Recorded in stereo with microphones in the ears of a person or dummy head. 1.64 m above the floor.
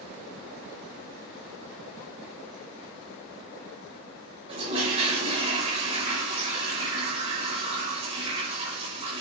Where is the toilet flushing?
35° right (ahead or behind), 6 m.